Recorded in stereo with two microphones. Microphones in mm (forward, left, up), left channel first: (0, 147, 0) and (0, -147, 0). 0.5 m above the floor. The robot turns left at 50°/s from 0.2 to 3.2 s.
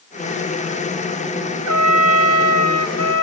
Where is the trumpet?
60° right, 0.6 m; by 3.2 s 135° right, 0.6 m.